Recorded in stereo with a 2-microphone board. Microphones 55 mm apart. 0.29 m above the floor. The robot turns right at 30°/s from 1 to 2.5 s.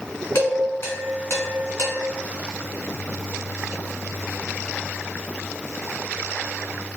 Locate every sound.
0.3 s dishes clattering: 55° left (ahead or behind), 1.7 m; by 1.9 s 70° left (ahead or behind), 1.7 m